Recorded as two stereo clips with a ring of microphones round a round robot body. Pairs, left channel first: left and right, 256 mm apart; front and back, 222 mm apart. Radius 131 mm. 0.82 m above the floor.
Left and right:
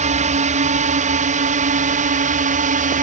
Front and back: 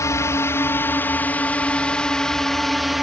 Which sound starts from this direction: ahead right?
A drone, at 0.0 s.